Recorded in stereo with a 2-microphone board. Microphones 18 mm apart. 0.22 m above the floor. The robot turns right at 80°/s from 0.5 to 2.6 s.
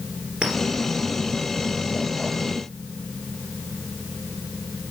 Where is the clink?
60° right (ahead or behind), 3 m; by 0.6 s 65° right (ahead or behind), 3 m.